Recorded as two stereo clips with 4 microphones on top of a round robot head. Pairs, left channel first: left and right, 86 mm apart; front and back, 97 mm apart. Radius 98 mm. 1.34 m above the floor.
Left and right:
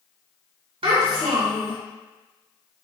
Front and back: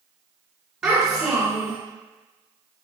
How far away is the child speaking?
About 1.4 m.